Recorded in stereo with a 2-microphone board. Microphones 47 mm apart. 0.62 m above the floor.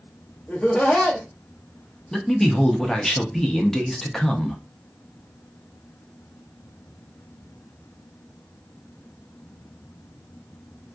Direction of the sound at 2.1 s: 10° left (ahead or behind).